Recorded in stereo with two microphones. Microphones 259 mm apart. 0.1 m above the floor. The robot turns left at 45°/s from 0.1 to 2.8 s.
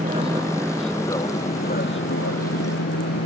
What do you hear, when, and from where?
0.0 s an aircraft: 150° right; by 3.3 s 90° left